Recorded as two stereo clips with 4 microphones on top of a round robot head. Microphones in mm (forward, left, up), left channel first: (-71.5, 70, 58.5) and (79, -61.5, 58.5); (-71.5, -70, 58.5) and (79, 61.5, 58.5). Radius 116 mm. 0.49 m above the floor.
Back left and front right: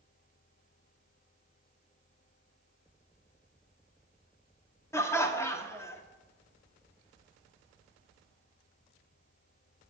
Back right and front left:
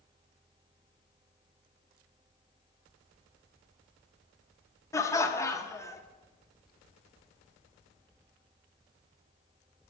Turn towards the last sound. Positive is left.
turn(degrees=-175)